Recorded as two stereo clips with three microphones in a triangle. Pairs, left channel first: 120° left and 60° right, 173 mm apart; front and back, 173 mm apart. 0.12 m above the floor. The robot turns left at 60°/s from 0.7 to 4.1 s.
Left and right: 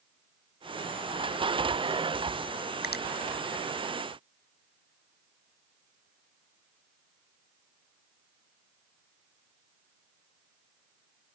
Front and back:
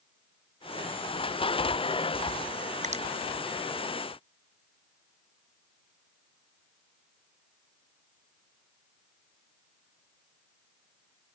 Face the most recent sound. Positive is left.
turn(degrees=60)